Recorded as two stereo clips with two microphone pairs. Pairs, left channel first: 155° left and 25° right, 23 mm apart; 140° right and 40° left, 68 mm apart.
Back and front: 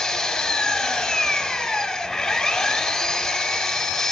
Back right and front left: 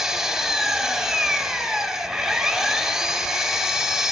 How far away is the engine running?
About 0.8 m.